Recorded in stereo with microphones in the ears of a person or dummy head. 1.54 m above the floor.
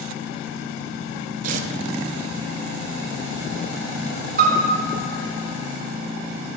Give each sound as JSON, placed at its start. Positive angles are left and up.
{"t": 1.4, "sound": "tearing paper", "side_deg": -45, "distance_m": 0.5}
{"t": 4.4, "sound": "a piano", "side_deg": -55, "distance_m": 1.1}